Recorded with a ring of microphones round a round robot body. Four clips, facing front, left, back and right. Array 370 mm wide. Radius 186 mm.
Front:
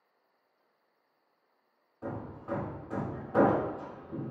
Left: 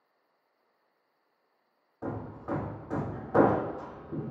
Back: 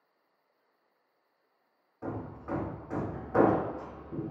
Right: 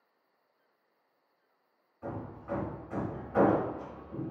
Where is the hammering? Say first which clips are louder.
Left 3 dB, back 1 dB; 100° left, 0.9 m.